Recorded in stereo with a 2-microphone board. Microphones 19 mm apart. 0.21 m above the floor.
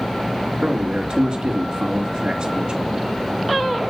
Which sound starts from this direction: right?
A man speaking, at 0.6 s.